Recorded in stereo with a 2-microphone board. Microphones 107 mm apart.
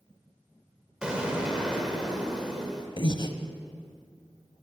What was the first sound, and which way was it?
An explosion, 10° right (ahead or behind).